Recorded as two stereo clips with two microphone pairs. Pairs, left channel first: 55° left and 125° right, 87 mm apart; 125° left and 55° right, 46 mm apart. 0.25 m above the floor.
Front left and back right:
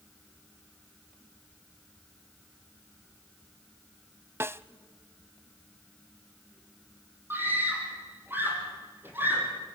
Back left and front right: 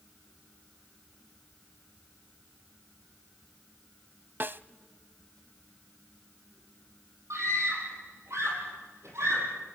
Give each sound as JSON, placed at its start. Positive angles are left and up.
{"t": 4.4, "sound": "a snare drum", "azimuth_deg": -75, "distance_m": 0.6}
{"t": 7.3, "sound": "a scream", "azimuth_deg": -60, "distance_m": 8.0}